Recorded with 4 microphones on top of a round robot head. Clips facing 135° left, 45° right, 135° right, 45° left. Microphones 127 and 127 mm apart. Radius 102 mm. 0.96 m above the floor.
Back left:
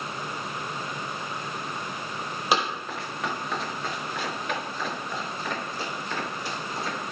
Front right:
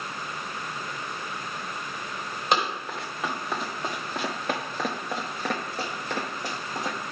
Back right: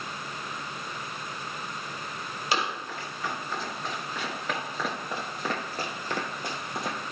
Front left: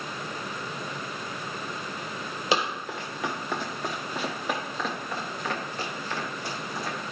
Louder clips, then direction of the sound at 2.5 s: Even, front left 3 dB; 50° left.